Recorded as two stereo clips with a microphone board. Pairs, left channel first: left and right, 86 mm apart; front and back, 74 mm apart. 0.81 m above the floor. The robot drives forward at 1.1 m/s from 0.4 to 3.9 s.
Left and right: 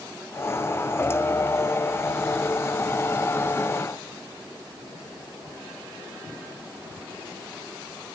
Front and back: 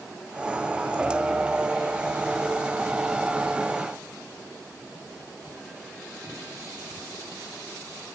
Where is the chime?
No chime in this recording.